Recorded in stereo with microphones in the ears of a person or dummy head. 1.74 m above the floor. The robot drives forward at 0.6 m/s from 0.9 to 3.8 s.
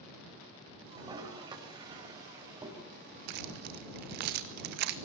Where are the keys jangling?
60° right (ahead or behind), 1.8 m; by 4.9 s 55° right (ahead or behind), 1.9 m.